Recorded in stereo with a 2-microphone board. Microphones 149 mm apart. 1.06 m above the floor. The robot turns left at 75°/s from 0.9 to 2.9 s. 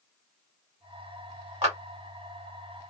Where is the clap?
40° right (ahead or behind), 1.5 m; by 1.8 s 50° right (ahead or behind), 1.5 m.